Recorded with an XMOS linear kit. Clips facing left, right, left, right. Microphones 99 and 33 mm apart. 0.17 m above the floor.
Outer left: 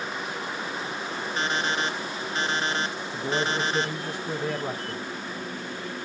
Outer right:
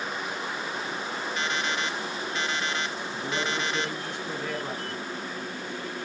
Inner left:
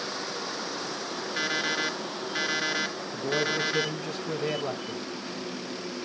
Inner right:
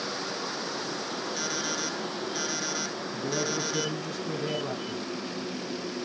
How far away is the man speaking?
About 1.6 m.